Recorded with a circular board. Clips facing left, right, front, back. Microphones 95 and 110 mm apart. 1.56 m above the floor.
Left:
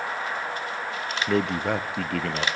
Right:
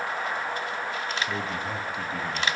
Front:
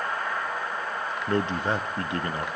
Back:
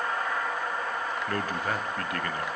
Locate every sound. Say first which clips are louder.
1.3 s a man speaking: left 7 dB, front 7 dB; 65° left, 0.6 m